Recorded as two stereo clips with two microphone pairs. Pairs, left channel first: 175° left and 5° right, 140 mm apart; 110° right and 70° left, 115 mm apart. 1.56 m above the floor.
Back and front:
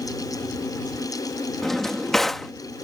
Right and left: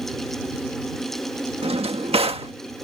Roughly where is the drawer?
Left.